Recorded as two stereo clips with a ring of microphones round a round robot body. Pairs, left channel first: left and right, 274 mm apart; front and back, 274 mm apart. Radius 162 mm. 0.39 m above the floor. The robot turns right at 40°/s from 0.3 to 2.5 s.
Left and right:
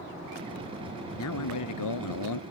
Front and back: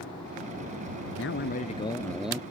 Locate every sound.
1.2 s a man speaking: 50° left; by 2.4 s 100° left